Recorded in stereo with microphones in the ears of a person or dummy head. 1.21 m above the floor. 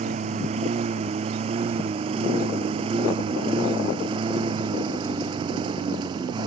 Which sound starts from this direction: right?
A lawn mower, at 0.0 s.